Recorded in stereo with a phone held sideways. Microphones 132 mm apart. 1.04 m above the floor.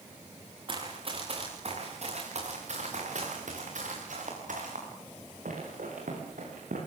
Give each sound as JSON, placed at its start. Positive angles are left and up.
{"t": 0.7, "sound": "running footsteps", "side_deg": -40, "distance_m": 6.5}